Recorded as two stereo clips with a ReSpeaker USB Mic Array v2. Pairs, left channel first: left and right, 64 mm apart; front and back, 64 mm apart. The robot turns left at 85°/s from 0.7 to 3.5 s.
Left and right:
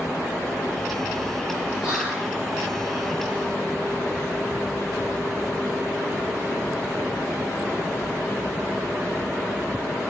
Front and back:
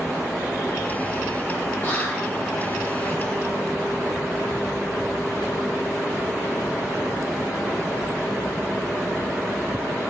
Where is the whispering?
20° right, 1.0 m; by 2.3 s 60° right, 1.0 m.